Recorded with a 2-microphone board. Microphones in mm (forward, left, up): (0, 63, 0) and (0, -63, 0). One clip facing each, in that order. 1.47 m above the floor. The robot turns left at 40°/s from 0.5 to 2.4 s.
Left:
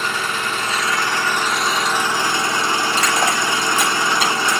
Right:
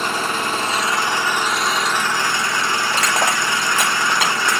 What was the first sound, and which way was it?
An engine running, 135° right.